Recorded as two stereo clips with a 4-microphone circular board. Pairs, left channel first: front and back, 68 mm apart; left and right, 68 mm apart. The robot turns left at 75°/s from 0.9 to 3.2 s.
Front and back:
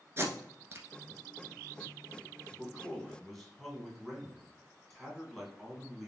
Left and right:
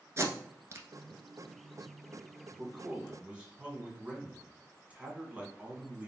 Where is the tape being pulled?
135° right, 1.0 m.